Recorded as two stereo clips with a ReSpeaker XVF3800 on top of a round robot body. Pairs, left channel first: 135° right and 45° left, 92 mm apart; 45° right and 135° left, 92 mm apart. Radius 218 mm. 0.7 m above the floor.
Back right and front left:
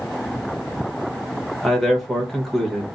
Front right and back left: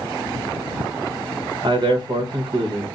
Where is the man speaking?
140° left, 1.2 m.